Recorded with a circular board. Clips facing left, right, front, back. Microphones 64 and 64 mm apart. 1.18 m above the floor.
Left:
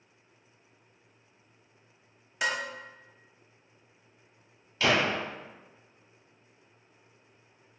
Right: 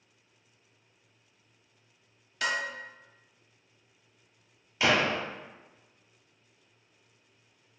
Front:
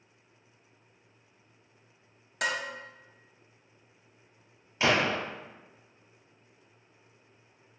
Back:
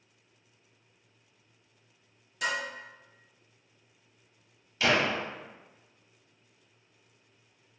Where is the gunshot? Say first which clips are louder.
Even, even; 40° right, 1.1 m.